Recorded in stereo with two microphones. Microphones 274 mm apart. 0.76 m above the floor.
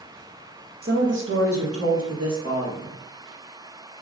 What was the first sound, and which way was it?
A woman speaking, 35° right (ahead or behind).